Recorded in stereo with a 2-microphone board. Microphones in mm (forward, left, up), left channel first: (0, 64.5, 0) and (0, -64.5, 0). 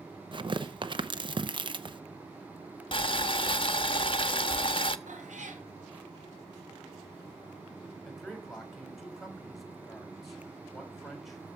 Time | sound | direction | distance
0.3 | tearing paper | 40° right (ahead or behind) | 0.7 m
2.9 | boiling | 40° left (ahead or behind) | 0.8 m
5.1 | a cat meowing | 70° right (ahead or behind) | 2.5 m
8.1 | a man speaking | centre (ahead or behind) | 3.5 m